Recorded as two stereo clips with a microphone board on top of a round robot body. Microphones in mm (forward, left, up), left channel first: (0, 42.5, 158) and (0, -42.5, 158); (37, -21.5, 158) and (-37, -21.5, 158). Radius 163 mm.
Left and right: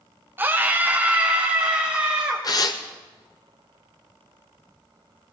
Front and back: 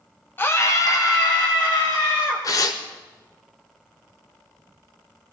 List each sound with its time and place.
0.4 s a scream: 40° right, 1.1 m; by 2.4 s 10° right, 3 m
2.4 s tearing paper: 45° left, 0.6 m